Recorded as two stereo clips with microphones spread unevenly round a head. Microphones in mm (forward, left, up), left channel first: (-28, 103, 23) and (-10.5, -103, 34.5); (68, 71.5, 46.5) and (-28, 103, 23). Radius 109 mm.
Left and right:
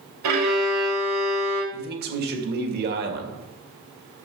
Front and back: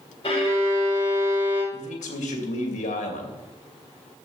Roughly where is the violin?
Right.